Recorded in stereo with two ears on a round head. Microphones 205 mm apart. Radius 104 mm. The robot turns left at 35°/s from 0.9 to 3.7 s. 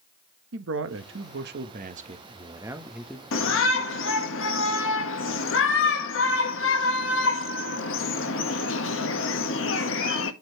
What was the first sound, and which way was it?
A man speaking, 105° right.